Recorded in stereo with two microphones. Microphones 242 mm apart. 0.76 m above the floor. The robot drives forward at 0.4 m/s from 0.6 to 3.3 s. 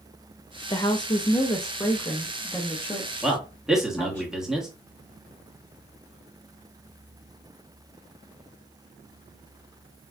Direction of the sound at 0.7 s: 20° left (ahead or behind).